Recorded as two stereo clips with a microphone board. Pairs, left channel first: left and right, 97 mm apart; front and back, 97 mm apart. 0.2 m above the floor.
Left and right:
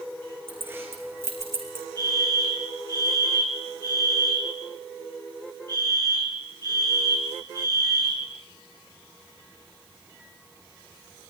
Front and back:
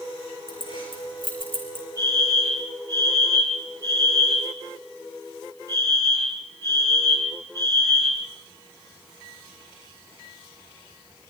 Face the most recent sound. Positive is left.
turn(degrees=-50)